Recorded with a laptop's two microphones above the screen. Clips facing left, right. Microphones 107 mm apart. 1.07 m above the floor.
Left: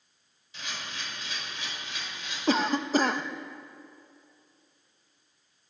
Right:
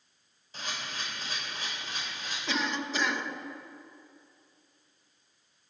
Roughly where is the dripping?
No dripping in this recording.